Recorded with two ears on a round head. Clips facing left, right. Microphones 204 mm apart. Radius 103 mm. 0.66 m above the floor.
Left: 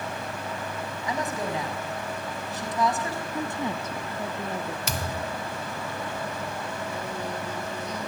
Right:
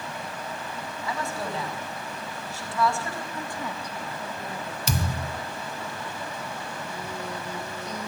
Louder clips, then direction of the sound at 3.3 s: Left 4 dB; 20° left (ahead or behind).